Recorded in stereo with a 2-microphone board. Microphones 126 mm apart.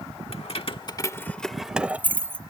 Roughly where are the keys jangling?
Left.